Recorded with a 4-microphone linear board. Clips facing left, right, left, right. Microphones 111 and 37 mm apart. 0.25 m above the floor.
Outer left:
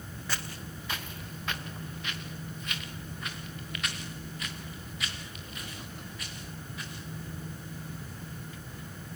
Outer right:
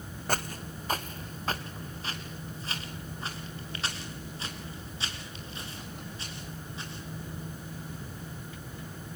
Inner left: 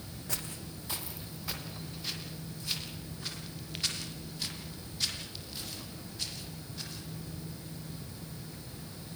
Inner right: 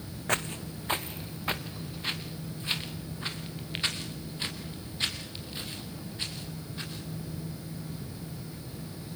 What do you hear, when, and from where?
0.3 s footsteps: 50° right (ahead or behind), 1.2 m; by 7.0 s 30° right (ahead or behind), 8 m